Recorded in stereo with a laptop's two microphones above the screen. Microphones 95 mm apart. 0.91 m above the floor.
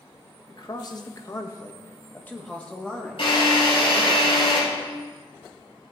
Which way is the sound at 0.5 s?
45° left (ahead or behind).